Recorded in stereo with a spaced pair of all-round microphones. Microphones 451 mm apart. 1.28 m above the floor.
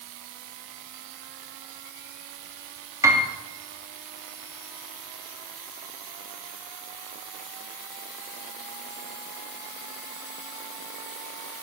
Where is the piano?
5° right (ahead or behind), 2.5 m.